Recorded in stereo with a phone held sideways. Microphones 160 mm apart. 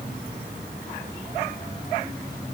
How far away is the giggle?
No giggle in this recording.